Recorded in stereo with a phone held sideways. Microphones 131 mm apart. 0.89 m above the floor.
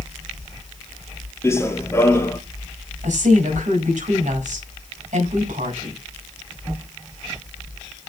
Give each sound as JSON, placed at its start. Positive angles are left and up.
{"t": 1.4, "sound": "running footsteps", "side_deg": 20, "distance_m": 1.2}
{"t": 3.0, "sound": "a woman speaking", "side_deg": -70, "distance_m": 5.5}